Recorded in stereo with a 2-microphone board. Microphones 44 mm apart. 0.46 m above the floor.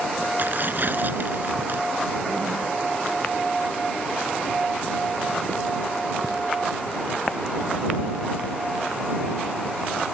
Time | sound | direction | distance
0.4 | tearing paper | 55° right (ahead or behind) | ?